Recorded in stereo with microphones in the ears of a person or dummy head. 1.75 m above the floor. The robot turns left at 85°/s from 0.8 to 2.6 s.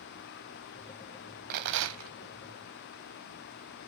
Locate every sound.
1.5 s a rattle: 50° right, 0.6 m; by 2.1 s 105° right, 0.6 m